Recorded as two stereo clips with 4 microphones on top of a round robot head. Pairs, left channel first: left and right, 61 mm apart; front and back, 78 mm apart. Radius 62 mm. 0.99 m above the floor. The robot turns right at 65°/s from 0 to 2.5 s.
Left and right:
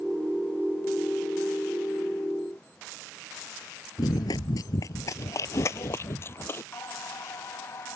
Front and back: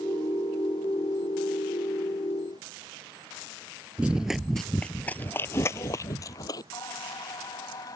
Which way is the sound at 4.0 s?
115° left.